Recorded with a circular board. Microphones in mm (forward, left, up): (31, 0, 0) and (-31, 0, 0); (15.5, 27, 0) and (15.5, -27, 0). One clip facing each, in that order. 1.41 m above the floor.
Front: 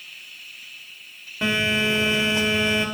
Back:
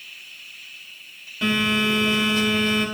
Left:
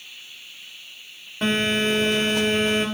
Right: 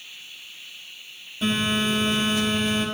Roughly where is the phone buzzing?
Ahead left.